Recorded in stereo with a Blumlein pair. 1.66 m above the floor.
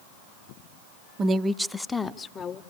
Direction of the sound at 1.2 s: 25° right.